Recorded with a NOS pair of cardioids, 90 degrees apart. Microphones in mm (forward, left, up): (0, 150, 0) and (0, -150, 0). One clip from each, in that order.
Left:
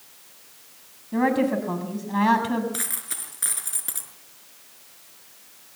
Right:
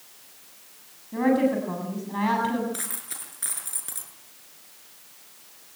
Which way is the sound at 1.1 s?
35° left.